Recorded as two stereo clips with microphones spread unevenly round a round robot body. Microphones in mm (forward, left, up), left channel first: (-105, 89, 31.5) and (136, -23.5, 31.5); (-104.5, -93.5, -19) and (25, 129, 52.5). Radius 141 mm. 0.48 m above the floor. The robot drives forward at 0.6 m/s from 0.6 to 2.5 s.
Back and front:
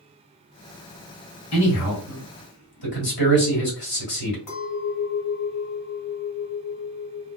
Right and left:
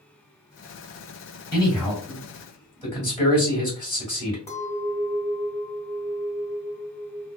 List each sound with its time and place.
1.5 s a man speaking: 160° left, 1.4 m; by 4.4 s 165° left, 1.9 m
4.5 s a clink: 170° left, 1.6 m